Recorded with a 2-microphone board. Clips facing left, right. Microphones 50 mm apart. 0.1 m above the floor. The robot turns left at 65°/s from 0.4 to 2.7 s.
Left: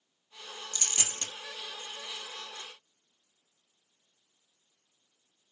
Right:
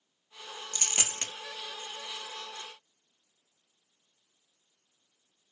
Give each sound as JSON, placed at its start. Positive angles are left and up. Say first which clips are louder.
{"t": 0.7, "sound": "a dropped coin", "louder": "right 3 dB", "side_deg": -30, "distance_m": 0.6}